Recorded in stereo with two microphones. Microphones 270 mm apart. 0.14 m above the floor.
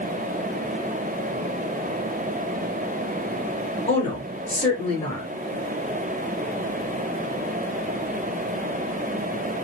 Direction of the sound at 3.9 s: 25° left (ahead or behind).